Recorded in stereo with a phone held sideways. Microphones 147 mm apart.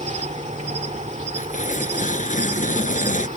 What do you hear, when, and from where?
0.0 s an insect: 55° right (ahead or behind)
1.4 s tearing paper: 55° left (ahead or behind)